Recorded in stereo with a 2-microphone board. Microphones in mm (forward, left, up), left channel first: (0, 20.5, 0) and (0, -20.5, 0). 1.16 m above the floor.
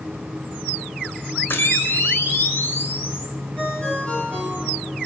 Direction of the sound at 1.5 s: 70° left (ahead or behind).